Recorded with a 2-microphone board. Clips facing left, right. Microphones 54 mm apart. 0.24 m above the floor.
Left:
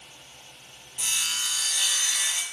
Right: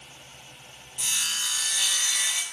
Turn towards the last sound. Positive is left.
turn(degrees=0)  # may be behind; listen again after turning